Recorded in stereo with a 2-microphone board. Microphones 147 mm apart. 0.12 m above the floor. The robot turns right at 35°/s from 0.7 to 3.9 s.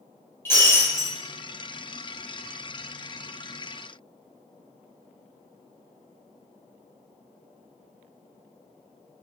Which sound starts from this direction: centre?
Breaking glass, at 0.5 s.